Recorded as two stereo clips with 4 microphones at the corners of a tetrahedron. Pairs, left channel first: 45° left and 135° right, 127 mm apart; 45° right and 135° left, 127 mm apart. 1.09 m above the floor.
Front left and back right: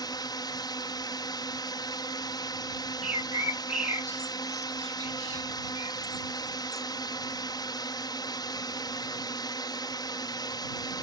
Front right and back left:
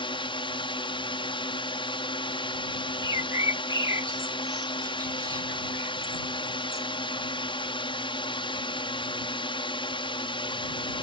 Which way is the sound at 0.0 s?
5° right.